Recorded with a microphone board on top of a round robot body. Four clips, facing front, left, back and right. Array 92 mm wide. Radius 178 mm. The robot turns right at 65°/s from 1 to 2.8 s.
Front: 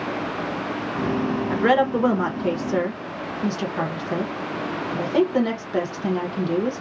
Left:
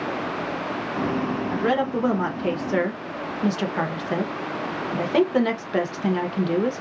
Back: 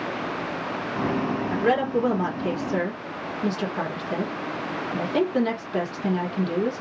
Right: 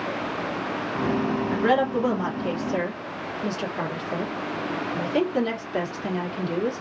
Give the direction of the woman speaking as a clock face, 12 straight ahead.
12 o'clock.